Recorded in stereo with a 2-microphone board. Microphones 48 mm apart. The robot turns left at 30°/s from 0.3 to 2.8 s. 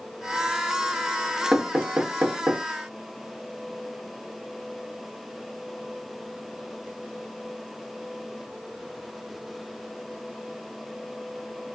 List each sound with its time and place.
1.5 s knocking: 10° right (ahead or behind), 0.8 m; by 2.6 s 45° right (ahead or behind), 0.8 m